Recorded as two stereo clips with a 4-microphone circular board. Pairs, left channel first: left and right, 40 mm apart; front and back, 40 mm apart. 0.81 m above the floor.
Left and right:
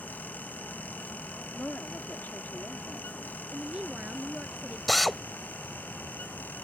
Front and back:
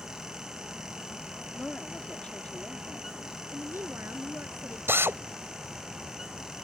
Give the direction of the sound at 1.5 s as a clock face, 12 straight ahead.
10 o'clock.